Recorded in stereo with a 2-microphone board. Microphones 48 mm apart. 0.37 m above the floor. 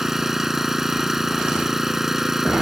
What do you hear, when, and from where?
0.0 s an engine running: 10° right (ahead or behind)